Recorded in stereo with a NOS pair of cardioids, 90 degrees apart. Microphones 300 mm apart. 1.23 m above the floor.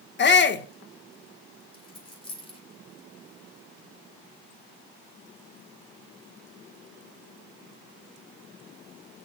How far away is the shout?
About 1.4 m.